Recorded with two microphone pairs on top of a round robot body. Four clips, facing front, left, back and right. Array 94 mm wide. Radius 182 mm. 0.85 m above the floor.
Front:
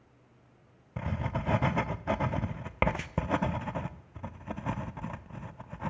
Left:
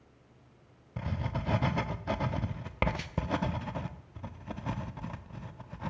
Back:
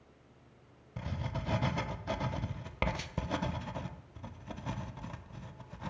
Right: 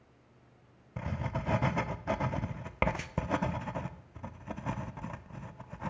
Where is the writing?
25° right, 0.7 m.